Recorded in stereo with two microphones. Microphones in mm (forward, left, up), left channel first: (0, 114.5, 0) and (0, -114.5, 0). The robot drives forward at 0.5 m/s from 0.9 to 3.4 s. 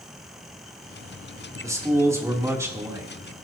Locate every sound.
1.6 s a man speaking: 15° right (ahead or behind), 3 m; by 3.1 s 10° right (ahead or behind), 4 m